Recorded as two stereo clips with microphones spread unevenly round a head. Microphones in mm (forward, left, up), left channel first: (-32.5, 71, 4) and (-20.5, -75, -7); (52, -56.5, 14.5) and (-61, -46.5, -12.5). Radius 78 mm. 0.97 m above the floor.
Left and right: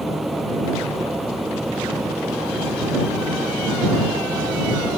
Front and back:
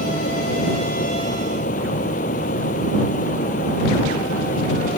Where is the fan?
5° left.